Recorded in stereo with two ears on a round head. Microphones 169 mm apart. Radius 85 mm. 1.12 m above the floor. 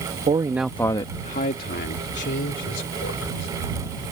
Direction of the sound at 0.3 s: 30° right (ahead or behind).